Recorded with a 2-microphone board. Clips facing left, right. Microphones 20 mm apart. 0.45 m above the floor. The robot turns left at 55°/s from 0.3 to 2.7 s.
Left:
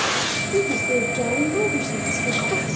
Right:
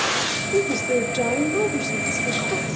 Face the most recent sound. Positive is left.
turn(degrees=140)